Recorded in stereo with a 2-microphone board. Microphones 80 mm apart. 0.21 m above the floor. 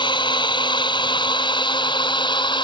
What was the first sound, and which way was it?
A drone, 75° left (ahead or behind).